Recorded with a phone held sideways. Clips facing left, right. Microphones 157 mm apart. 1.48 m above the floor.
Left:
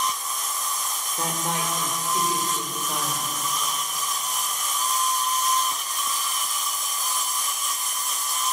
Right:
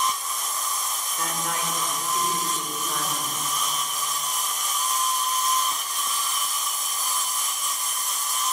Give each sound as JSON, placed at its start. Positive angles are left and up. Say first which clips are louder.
{"t": 1.2, "sound": "a woman speaking", "louder": "left 2 dB", "side_deg": 25, "distance_m": 5.0}